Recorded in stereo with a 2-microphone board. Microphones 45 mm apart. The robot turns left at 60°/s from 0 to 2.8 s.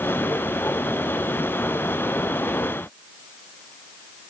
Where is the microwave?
No microwave in this recording.